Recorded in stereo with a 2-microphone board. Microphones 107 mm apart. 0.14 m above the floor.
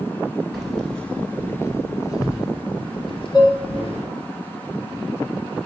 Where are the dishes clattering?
40° left (ahead or behind), 1.5 m.